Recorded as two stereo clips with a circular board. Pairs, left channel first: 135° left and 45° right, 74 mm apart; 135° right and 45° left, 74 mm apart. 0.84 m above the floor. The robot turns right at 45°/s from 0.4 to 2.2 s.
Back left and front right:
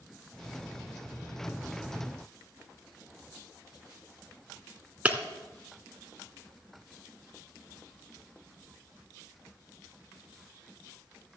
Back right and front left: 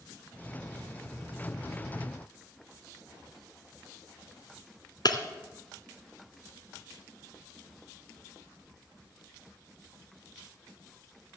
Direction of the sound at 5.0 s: 115° right.